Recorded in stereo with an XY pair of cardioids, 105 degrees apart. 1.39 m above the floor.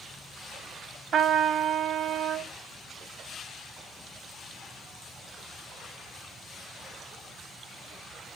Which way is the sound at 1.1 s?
65° right.